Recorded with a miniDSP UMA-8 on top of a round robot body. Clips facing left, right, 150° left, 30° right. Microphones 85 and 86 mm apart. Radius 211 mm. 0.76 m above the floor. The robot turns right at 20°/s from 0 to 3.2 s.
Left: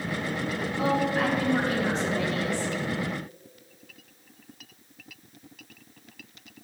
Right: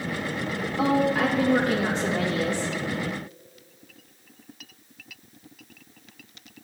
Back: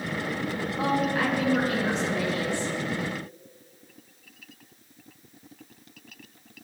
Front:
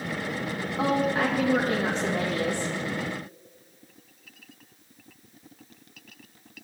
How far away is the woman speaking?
About 1.7 m.